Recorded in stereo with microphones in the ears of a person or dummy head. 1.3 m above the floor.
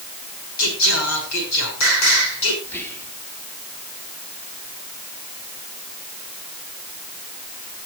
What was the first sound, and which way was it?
Singing, 80° left.